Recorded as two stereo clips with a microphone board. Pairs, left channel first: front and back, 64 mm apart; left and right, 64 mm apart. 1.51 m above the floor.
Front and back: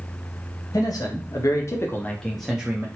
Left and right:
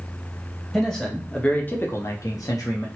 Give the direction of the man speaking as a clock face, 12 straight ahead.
12 o'clock.